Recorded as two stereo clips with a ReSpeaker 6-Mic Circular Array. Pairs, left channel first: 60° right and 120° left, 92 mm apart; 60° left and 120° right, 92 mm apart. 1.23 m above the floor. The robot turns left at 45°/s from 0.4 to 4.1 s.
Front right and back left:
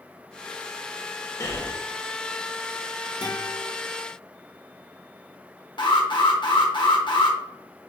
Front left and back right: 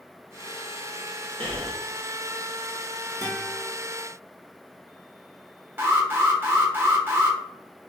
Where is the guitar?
65° right, 1.6 m; by 3.7 s 90° right, 1.6 m.